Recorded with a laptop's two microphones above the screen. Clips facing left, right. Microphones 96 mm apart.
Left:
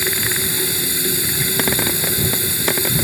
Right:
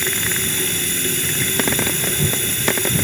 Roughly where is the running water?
Centre.